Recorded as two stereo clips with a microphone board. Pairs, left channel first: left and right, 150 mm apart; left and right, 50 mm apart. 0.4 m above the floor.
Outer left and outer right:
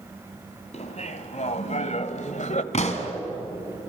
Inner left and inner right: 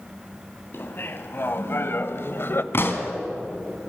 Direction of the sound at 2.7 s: 50° left (ahead or behind).